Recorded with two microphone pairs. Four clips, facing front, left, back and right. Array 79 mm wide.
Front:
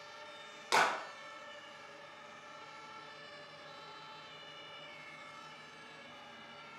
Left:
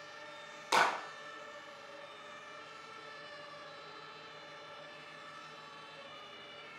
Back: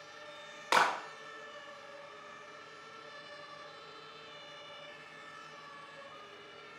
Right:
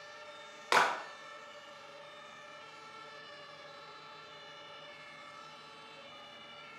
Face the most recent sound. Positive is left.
turn(degrees=-130)